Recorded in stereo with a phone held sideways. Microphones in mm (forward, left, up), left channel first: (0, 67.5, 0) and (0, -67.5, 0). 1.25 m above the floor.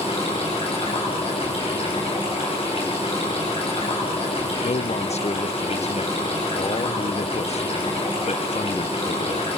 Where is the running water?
45° left (ahead or behind), 7.5 m.